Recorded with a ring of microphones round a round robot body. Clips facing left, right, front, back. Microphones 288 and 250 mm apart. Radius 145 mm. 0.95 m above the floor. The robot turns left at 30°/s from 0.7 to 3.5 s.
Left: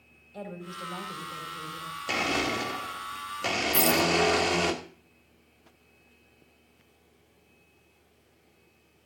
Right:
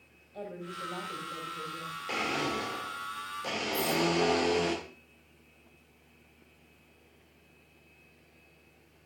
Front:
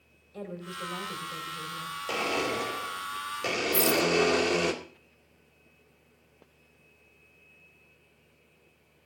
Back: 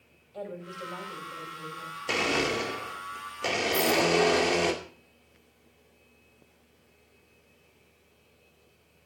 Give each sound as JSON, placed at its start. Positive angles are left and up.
{"t": 0.3, "sound": "a woman speaking", "azimuth_deg": 50, "distance_m": 5.0}
{"t": 2.1, "sound": "a blender", "azimuth_deg": 120, "distance_m": 2.0}
{"t": 3.7, "sound": "a rattle", "azimuth_deg": 45, "distance_m": 0.7}